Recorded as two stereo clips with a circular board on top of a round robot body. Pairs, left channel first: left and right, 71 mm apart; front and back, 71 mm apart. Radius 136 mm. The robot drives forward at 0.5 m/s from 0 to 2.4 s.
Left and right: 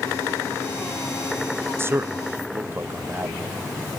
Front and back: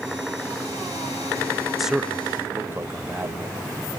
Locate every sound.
1.8 s a man speaking: 95° right, 0.7 m; by 3.5 s 135° right, 0.7 m